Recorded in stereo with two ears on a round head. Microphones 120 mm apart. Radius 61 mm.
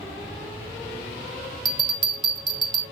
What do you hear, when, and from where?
1.6 s a bell: 35° right (ahead or behind), 1.3 m